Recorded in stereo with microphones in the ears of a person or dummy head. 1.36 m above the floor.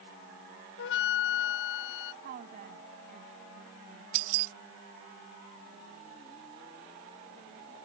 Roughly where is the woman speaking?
Right.